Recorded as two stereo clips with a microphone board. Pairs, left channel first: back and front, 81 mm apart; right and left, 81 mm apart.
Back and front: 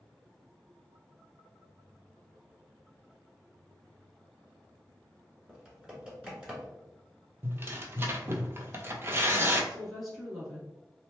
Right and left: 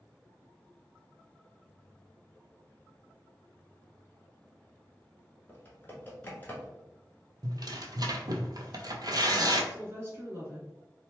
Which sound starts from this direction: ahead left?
Tearing paper, at 7.4 s.